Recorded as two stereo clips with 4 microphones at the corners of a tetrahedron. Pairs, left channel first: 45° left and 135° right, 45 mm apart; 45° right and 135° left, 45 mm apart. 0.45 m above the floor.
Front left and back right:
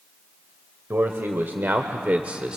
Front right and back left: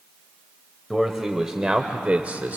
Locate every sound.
0.9 s a man speaking: 135° right, 1.6 m; by 2.6 s 160° left, 1.1 m